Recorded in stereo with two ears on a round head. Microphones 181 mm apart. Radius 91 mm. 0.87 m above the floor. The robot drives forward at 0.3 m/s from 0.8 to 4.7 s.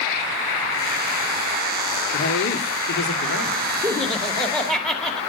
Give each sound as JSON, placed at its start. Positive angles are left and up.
{"t": 2.1, "sound": "a man speaking", "side_deg": 75, "distance_m": 1.9}
{"t": 3.8, "sound": "laughter", "side_deg": 5, "distance_m": 1.9}